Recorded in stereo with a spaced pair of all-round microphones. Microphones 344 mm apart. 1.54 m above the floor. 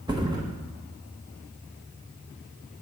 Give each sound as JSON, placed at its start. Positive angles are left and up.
{"t": 0.1, "sound": "a thud", "side_deg": -10, "distance_m": 1.0}